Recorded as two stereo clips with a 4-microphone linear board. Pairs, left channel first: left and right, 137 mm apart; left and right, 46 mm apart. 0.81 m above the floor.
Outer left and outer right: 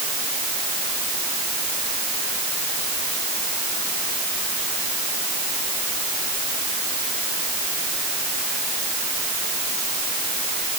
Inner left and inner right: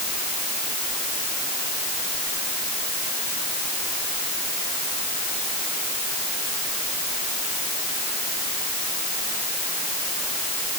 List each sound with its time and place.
Only background noise.